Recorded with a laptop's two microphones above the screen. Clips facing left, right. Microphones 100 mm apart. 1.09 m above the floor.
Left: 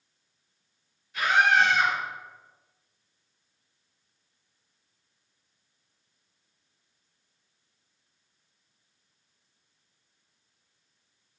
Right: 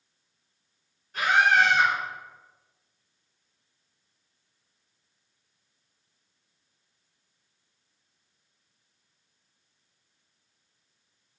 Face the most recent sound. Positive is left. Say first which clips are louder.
# right 1 dB
turn(degrees=-45)  # may be behind; listen again after turning